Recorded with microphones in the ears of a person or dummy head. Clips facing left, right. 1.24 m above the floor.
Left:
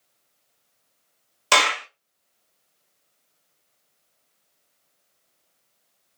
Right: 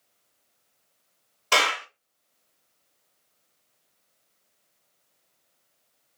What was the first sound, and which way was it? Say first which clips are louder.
A clap: left 3 dB; 60° left (ahead or behind).